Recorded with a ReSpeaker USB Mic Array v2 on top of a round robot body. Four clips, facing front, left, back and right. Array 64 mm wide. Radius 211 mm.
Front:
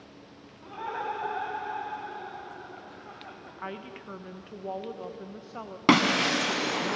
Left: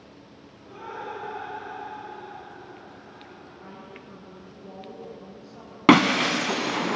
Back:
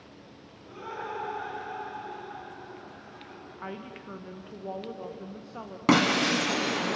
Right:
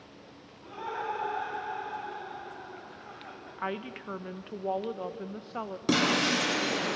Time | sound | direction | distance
0.6 | laughter | 15° right | 7.5 m
3.6 | a woman speaking | 80° right | 1.5 m
5.9 | breaking glass | 80° left | 1.5 m